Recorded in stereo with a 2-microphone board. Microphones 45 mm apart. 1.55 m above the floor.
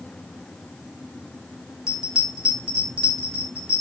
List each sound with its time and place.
1.9 s a bell: 15° right (ahead or behind), 4.5 m